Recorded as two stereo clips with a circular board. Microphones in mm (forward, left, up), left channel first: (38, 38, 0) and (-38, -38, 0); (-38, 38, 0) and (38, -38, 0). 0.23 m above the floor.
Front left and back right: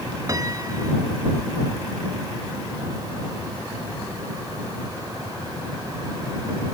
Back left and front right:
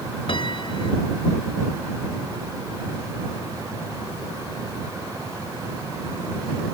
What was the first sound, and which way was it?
A piano, 170° left.